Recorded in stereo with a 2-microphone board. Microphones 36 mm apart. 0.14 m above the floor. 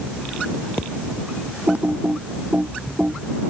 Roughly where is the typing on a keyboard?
Right.